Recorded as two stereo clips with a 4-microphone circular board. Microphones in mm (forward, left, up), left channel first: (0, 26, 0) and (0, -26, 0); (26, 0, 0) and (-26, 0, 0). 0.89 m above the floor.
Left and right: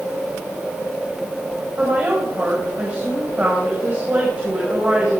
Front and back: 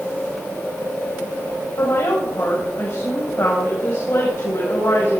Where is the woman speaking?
30° right, 4.5 m.